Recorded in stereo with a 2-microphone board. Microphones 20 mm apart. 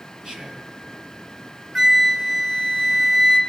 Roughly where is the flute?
Right.